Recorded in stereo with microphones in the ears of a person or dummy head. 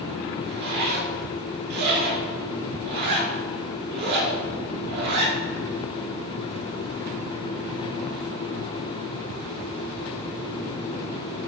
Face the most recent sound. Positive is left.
turn(degrees=-55)  # may be behind; listen again after turning